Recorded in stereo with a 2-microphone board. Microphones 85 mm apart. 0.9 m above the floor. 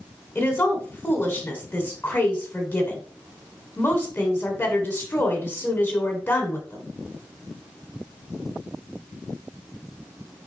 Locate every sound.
0.3 s a woman speaking: 20° left (ahead or behind), 2.5 m